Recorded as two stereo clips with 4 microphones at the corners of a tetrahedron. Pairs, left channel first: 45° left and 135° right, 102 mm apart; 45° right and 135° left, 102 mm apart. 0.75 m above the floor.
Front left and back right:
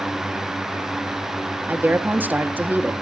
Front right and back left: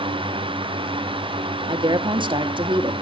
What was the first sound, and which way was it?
A woman speaking, 155° left.